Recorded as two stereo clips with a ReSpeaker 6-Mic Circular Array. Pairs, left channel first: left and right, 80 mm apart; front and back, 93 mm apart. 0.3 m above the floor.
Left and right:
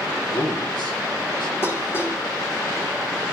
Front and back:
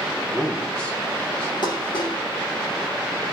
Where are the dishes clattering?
30° left, 6 m.